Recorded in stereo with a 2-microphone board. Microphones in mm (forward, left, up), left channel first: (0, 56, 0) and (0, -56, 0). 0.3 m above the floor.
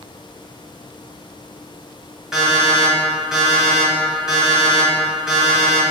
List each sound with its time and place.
2.3 s an alarm clock: 5° right (ahead or behind), 1.2 m